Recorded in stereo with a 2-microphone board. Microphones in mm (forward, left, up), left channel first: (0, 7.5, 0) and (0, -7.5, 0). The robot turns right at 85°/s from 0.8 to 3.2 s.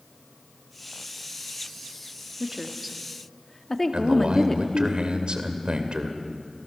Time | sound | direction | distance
2.4 | a woman speaking | 30° right (ahead or behind) | 1.5 m
3.9 | a man speaking | 65° right (ahead or behind) | 2.5 m